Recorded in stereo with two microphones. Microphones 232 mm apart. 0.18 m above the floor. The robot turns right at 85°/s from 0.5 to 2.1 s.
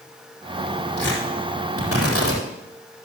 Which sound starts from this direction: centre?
Tearing paper, at 1.0 s.